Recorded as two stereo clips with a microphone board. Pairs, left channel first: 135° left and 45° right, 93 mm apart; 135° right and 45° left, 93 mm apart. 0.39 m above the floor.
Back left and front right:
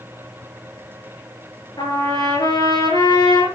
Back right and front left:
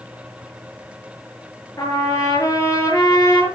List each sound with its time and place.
1.8 s a trumpet: 175° left, 7.5 m